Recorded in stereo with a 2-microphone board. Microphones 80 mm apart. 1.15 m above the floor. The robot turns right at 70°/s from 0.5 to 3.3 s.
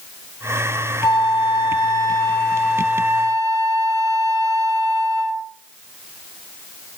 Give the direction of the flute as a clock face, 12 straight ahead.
10 o'clock.